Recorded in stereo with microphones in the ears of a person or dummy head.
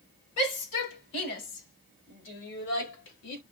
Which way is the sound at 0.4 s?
65° left (ahead or behind).